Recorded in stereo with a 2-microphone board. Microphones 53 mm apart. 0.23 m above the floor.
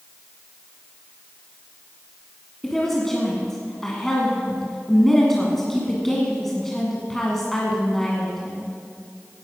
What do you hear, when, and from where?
2.6 s a woman speaking: 5° left (ahead or behind), 2.0 m